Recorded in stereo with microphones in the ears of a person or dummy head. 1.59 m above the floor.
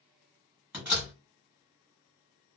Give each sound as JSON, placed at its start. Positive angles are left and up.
{"t": 0.7, "sound": "a door slam", "side_deg": -5, "distance_m": 1.4}